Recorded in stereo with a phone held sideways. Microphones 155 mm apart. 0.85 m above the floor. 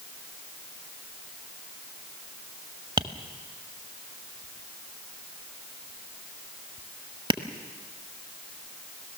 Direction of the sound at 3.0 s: 30° right (ahead or behind).